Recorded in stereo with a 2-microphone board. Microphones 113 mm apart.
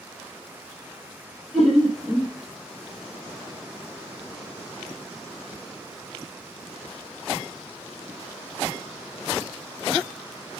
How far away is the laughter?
About 3 m.